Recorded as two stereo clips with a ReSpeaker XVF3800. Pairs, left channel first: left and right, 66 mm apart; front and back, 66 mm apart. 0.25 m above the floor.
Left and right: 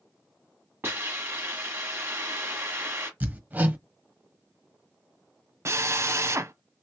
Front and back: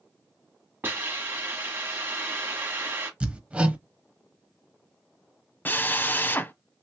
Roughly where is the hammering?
Behind right.